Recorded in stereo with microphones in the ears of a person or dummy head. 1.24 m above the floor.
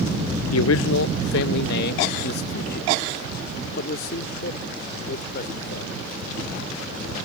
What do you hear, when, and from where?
0.5 s a man speaking: 75° left (ahead or behind); by 6.0 s 50° left (ahead or behind)